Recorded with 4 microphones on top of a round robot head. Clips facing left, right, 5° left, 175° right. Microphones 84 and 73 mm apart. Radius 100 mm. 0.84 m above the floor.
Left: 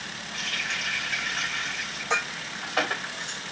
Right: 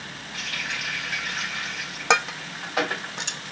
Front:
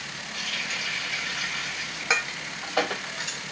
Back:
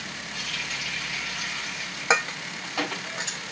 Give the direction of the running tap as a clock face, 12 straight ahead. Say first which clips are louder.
Even, front 2 dB; 12 o'clock.